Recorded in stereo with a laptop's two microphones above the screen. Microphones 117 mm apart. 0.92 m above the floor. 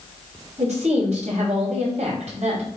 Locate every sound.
0.6 s a woman speaking: 65° right (ahead or behind), 4.5 m